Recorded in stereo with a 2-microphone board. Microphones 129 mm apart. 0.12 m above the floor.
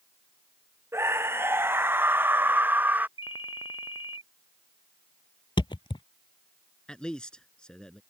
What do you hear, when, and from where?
0.9 s a scream: 20° right (ahead or behind); by 3.1 s 15° right (ahead or behind)
3.2 s a ringtone: 45° left (ahead or behind)
5.6 s a thud: 40° left (ahead or behind)
6.9 s a man speaking: 5° left (ahead or behind)